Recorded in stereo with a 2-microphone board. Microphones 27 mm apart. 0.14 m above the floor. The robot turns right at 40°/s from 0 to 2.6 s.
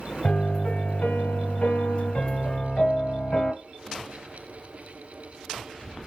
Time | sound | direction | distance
0.2 | a piano | 45° left | 1.1 m